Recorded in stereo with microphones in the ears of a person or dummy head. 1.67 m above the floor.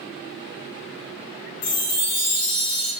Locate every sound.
1.6 s a chime: 75° left (ahead or behind), 1.1 m